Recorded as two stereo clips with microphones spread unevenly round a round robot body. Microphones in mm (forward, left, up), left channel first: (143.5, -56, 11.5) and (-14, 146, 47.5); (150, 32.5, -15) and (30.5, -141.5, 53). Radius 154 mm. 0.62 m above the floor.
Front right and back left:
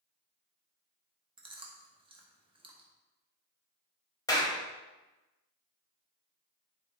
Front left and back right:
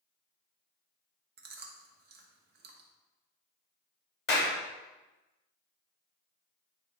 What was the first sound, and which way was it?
Chewing, 165° right.